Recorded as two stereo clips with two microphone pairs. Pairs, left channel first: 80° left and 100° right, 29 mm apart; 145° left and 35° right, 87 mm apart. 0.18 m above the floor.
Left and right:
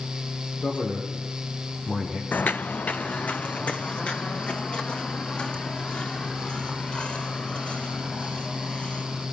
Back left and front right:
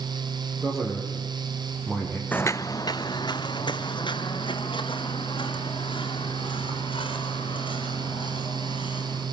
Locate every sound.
0.6 s a man speaking: 50° left, 7 m
2.3 s footsteps: 70° left, 0.6 m; by 9.2 s 125° left, 10 m